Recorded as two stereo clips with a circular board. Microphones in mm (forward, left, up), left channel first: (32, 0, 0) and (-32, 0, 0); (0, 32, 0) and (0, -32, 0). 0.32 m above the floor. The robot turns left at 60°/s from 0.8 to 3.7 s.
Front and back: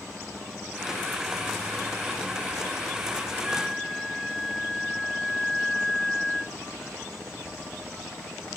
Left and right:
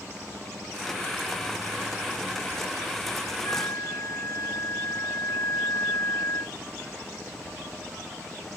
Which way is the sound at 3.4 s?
110° left.